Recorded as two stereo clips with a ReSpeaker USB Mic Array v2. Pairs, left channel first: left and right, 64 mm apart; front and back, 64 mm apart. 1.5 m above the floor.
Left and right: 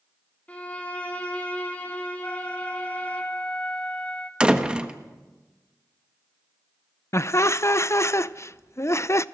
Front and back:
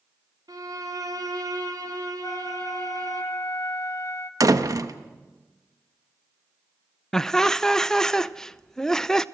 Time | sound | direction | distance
0.5 | a violin | 160° left | 3.5 m
2.2 | a flute | 25° left | 2.5 m
4.4 | a door slam | 165° right | 1.3 m
7.1 | laughter | 80° left | 0.5 m